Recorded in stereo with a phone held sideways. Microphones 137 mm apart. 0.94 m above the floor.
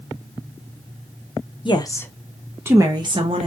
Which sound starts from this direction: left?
A woman speaking, at 1.6 s.